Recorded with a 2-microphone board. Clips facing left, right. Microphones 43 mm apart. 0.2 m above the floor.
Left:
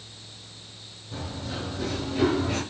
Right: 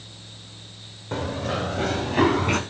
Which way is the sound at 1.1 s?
70° right (ahead or behind).